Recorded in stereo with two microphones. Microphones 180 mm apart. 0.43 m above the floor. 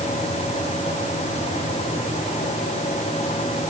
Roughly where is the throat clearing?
I don't hear throat clearing.